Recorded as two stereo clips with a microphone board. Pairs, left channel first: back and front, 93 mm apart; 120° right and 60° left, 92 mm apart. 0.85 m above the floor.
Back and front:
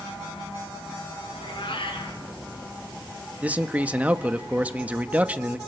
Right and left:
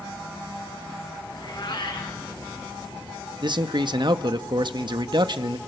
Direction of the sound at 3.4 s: 70° left.